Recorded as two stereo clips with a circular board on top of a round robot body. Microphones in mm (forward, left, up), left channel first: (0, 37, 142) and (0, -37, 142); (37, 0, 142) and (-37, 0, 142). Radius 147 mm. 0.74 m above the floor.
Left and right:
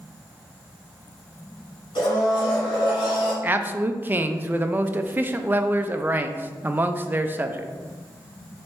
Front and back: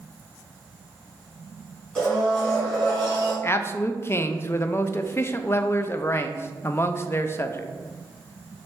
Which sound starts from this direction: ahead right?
A man speaking, at 3.4 s.